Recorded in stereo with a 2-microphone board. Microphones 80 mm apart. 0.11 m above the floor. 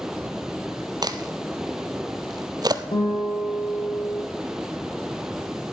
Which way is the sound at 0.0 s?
5° right (ahead or behind).